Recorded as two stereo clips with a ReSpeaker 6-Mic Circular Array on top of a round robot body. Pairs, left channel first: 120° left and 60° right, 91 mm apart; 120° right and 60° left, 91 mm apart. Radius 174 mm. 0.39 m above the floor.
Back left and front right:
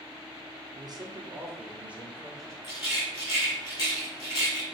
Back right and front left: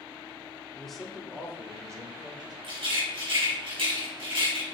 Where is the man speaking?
40° right, 1.9 m; by 2.5 s 35° left, 2.0 m.